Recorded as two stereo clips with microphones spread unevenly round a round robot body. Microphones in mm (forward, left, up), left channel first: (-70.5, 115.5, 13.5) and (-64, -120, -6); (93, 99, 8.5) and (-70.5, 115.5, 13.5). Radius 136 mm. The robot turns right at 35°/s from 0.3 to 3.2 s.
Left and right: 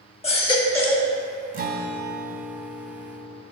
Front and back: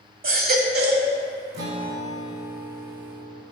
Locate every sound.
0.2 s a baby crying: 155° left, 1.4 m; by 1.1 s 175° right, 1.4 m
1.5 s a guitar: 145° right, 0.9 m; by 3.4 s 85° right, 0.9 m